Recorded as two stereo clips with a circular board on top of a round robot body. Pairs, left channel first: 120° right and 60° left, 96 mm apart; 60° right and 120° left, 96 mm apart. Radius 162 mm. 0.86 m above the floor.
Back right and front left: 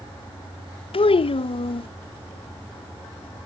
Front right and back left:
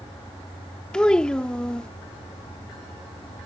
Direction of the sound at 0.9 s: 140° right.